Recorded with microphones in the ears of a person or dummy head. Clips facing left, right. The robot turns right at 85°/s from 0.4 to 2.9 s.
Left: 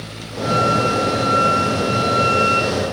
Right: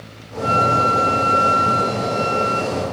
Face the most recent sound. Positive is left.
turn(degrees=90)